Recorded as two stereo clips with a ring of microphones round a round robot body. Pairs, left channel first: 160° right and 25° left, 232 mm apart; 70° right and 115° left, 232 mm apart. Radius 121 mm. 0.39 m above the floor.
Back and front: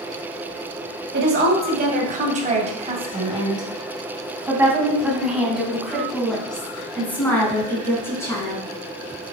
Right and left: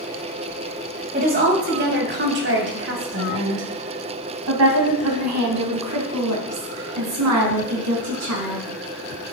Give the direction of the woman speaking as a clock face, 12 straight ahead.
10 o'clock.